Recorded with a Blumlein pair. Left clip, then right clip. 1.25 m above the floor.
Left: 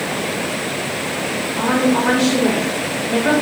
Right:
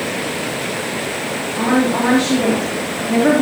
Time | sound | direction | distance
1.6 | a woman speaking | 65° right | 3.5 m